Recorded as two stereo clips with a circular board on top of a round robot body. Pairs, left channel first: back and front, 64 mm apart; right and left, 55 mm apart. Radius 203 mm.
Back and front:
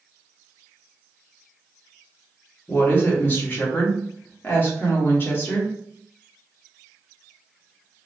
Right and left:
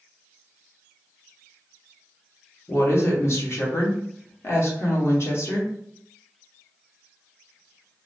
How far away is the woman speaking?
About 1.4 m.